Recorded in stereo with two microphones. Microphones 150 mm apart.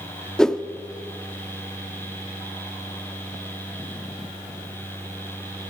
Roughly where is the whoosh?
Centre.